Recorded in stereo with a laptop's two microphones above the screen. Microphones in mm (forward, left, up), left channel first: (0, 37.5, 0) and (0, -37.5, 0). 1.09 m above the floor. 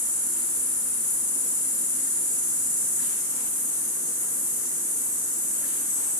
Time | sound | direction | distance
0.0 | an insect | 70° left (ahead or behind) | 1.9 m